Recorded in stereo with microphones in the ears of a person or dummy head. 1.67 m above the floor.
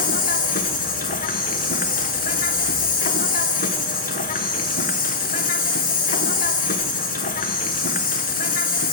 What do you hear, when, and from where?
0.0 s an insect: 50° left (ahead or behind), 0.9 m